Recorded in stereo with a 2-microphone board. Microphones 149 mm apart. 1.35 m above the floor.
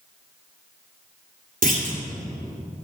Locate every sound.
1.6 s a clunk: 65° right (ahead or behind), 2 m